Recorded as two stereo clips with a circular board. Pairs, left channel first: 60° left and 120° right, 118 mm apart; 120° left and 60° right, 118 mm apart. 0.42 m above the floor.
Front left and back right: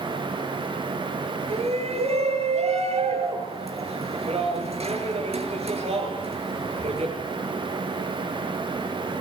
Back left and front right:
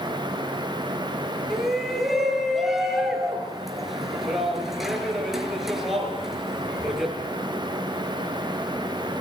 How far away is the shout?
About 6.5 m.